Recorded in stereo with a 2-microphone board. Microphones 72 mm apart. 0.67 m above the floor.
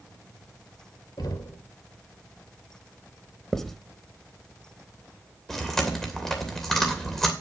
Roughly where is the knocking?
Left.